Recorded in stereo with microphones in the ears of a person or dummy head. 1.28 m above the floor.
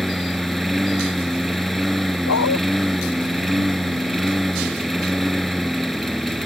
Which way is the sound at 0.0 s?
Centre (ahead or behind).